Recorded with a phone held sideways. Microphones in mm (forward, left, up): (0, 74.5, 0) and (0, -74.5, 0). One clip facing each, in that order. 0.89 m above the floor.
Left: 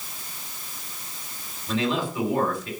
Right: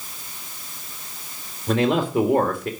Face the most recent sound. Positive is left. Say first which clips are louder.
# right 6 dB
turn(degrees=-65)  # may be behind; listen again after turning